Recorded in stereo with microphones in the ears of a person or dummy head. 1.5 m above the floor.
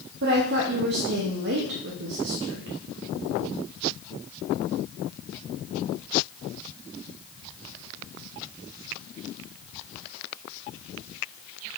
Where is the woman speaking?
55° right (ahead or behind), 0.7 m.